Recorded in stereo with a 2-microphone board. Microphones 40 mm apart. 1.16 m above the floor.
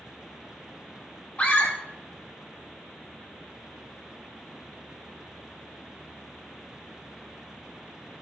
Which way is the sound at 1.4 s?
35° left (ahead or behind).